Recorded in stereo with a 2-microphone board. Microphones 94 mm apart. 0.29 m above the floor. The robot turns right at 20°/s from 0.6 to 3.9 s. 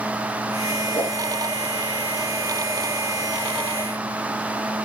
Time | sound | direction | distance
0.9 | a whoosh | 20° left (ahead or behind) | 4 m